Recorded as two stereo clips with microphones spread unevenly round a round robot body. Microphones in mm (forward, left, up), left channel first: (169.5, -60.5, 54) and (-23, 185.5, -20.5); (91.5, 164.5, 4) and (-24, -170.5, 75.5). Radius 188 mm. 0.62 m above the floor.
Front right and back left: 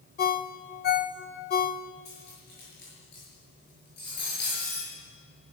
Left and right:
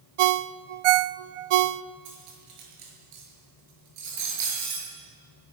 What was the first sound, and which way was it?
A ringtone, 125° right.